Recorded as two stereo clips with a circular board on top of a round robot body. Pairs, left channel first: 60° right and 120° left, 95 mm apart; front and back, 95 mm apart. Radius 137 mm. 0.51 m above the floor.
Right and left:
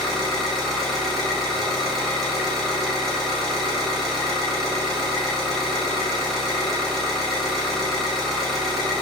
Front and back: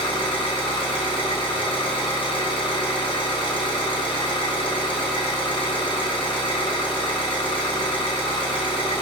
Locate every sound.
0.0 s an engine running: 25° left, 1.4 m